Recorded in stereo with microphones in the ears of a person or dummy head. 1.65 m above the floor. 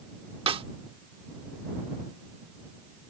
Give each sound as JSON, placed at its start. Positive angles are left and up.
{"t": 0.5, "sound": "a snare drum", "side_deg": -30}